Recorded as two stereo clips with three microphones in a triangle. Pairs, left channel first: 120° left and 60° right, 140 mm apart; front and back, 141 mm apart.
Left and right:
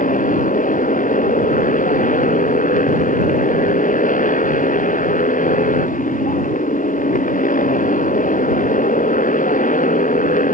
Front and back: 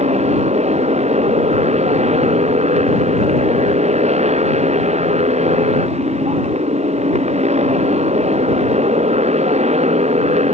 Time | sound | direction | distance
0.0 | a motorcycle | 140° left | ?